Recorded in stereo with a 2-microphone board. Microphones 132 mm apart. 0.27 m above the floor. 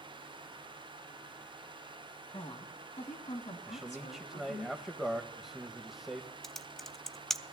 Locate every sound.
2.3 s a woman speaking: 45° left (ahead or behind), 2 m; by 4.7 s 65° left (ahead or behind), 3 m
3.7 s a man speaking: centre (ahead or behind), 1.0 m
6.4 s typing on a keyboard: 5° left (ahead or behind), 0.6 m